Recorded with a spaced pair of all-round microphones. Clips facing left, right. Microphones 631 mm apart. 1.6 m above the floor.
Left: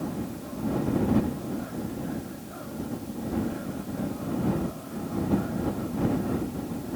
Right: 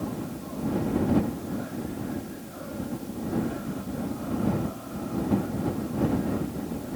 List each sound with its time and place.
Only background noise.